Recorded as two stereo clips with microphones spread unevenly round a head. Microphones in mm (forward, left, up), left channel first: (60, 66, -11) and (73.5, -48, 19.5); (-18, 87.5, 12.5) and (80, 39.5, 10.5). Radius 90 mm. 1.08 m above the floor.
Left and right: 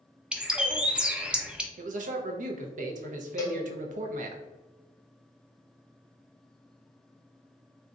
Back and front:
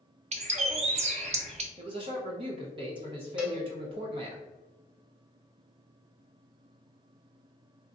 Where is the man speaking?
75° right, 0.6 m.